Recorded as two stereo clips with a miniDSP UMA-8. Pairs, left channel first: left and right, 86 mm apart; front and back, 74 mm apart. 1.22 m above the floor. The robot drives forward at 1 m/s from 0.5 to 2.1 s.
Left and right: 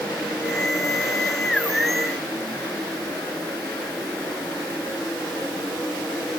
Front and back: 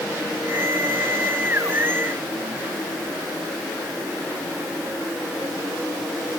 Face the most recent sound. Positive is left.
No sound to turn to.